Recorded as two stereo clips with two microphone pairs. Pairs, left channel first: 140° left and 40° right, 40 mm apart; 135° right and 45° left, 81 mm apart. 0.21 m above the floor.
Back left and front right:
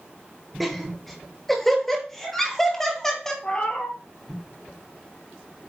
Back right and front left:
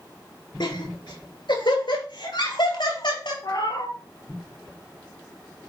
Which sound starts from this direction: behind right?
Laughter, at 0.6 s.